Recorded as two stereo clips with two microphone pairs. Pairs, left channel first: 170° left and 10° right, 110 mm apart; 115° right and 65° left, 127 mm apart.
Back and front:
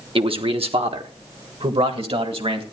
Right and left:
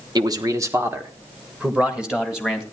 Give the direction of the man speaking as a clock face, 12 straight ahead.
12 o'clock.